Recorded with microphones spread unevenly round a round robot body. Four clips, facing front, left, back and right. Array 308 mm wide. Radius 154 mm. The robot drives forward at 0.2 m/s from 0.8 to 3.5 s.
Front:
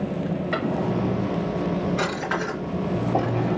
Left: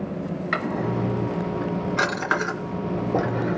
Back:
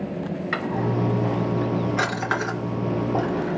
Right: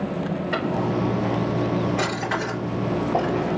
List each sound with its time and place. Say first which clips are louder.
0.5 s a drawer: right 1 dB, back 1 dB; 125° left, 3 m; by 3.6 s 135° left, 3 m